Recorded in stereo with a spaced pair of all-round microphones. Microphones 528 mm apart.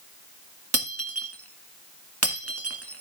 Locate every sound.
0.7 s breaking glass: 25° right (ahead or behind), 1.7 m